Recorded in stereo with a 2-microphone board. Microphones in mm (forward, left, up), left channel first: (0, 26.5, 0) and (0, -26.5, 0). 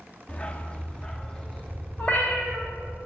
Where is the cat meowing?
30° left (ahead or behind), 3 m.